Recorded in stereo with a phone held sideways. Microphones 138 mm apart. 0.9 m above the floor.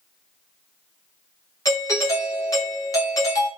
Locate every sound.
1.6 s a doorbell: 25° left (ahead or behind), 0.8 m